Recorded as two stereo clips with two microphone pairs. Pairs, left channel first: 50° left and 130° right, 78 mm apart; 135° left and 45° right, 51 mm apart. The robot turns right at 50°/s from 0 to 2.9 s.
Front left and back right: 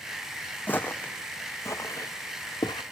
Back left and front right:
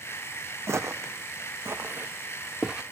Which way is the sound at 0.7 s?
15° right.